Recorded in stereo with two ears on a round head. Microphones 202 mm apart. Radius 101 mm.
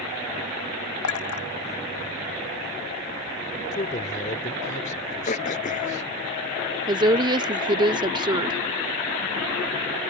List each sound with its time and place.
1.0 s a clink: 80° left
3.7 s a man speaking: 35° left (ahead or behind)
5.3 s throat clearing: 35° left (ahead or behind)
6.9 s a woman speaking: 20° right (ahead or behind)